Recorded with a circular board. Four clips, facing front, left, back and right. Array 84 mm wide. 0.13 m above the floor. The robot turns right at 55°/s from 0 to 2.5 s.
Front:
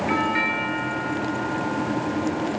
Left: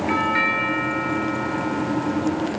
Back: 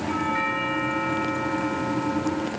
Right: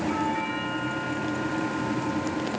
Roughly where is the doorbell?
Ahead left.